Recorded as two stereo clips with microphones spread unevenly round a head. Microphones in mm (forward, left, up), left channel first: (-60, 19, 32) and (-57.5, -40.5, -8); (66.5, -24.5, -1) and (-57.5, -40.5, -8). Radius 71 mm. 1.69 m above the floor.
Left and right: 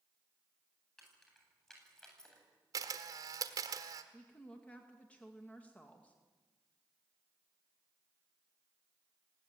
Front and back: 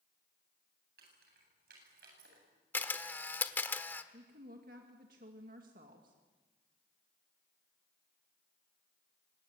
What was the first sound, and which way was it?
Keys jangling, 175° left.